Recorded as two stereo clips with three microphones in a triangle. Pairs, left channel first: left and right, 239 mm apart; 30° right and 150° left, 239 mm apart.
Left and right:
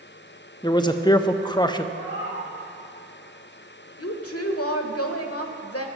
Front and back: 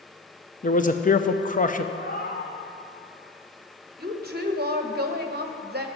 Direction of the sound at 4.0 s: 105° left.